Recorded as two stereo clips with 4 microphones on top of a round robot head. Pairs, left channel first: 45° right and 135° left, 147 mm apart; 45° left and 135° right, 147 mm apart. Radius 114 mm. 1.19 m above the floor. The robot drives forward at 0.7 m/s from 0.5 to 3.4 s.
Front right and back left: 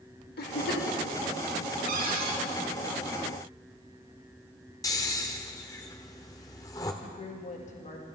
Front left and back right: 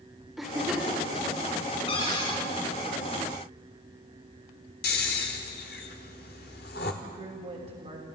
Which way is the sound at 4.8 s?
20° left.